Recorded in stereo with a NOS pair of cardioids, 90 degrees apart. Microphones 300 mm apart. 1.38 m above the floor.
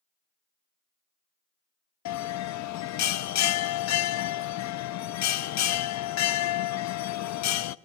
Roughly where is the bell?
Ahead left.